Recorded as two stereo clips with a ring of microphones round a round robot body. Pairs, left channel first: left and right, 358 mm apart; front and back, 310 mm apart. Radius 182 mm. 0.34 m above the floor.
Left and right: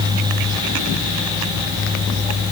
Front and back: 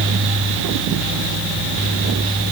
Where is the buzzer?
I don't hear a buzzer.